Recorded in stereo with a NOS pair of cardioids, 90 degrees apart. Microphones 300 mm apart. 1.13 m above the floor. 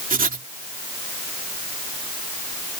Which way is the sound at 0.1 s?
30° right.